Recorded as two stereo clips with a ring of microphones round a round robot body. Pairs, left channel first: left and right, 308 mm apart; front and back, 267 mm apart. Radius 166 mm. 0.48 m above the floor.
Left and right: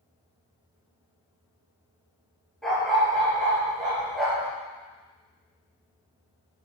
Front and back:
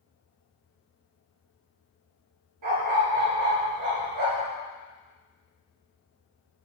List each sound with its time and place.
2.6 s a dog barking: straight behind, 3 m